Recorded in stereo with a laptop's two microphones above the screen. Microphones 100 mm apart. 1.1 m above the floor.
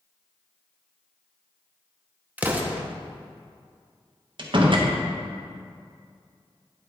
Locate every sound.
2.4 s an explosion: 15° right (ahead or behind), 0.8 m
4.4 s a door slam: 50° right (ahead or behind), 0.8 m